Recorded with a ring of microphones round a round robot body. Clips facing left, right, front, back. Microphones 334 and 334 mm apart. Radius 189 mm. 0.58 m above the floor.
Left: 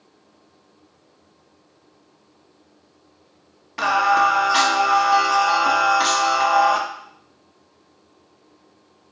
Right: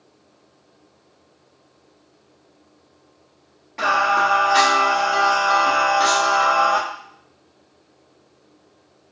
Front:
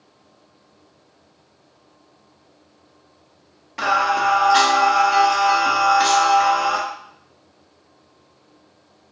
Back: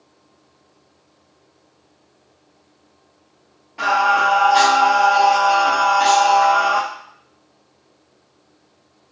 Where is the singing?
40° left, 0.9 m.